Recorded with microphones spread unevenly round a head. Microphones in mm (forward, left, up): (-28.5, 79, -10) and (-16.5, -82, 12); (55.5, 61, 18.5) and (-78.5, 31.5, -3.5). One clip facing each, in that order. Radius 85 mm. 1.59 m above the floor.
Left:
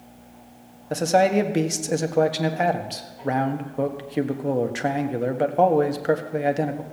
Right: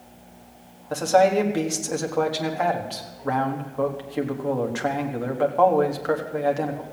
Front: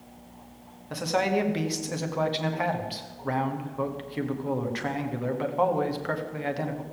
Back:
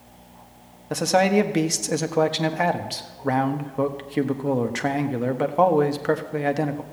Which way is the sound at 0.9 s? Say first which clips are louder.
Right 1 dB, back 7 dB; 160° left.